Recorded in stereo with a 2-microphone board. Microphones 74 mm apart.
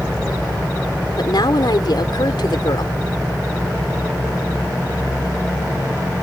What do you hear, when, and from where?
1.2 s a woman speaking: 80° left